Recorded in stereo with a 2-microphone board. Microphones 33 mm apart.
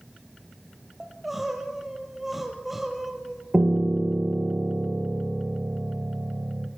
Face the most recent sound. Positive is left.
turn(degrees=-55)  # may be behind; listen again after turning